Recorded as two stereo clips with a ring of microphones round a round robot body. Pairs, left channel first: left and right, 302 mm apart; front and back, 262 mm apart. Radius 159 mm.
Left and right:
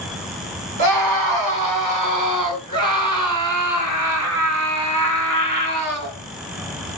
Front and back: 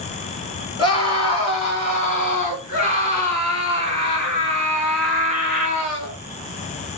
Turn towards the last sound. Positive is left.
turn(degrees=-50)